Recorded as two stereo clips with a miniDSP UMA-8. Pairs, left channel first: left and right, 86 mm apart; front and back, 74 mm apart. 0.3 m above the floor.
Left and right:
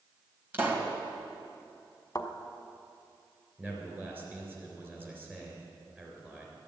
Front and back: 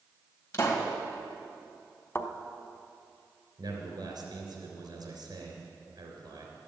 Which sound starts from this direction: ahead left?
A thud, at 2.1 s.